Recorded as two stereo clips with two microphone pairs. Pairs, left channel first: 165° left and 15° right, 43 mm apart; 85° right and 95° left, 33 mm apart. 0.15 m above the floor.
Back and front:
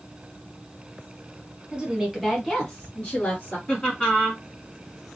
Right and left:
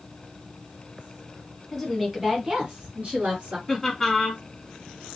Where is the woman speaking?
5° right, 1.1 m; by 3.6 s 120° left, 1.7 m.